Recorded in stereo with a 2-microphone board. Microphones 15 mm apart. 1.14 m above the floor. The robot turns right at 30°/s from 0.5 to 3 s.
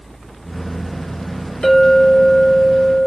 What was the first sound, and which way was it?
A clink, 60° left.